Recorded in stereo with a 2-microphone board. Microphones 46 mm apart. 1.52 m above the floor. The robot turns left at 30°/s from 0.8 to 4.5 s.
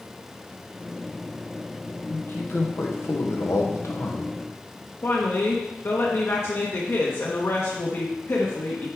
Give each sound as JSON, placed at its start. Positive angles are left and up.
{"t": 2.1, "sound": "a man speaking", "azimuth_deg": 135, "distance_m": 1.3}
{"t": 5.0, "sound": "a woman speaking", "side_deg": 65, "distance_m": 1.2}